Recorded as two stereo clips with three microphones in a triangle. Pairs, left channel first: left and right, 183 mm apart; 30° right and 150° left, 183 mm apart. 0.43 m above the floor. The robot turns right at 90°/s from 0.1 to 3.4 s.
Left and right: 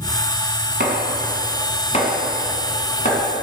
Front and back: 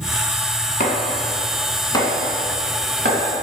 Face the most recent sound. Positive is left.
turn(degrees=165)